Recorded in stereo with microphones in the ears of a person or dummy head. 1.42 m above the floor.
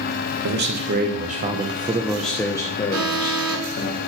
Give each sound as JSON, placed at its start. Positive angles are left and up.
{"t": 0.4, "sound": "a man speaking", "side_deg": -65, "distance_m": 1.1}
{"t": 2.9, "sound": "an alarm", "side_deg": -85, "distance_m": 6.0}